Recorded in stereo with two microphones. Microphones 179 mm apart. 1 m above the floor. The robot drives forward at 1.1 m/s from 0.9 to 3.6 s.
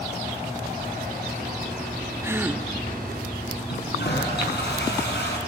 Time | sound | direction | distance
2.2 | a gasp | 15° right (ahead or behind) | 0.6 m
3.7 | a toilet flushing | 75° left (ahead or behind) | 5 m